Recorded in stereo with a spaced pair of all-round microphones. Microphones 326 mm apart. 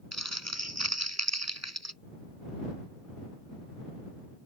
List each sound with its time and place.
0.1 s crumpling: 55° right (ahead or behind)